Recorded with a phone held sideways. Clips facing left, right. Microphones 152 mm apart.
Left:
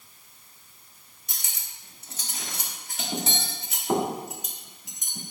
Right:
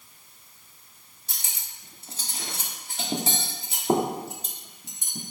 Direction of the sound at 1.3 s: 30° right (ahead or behind).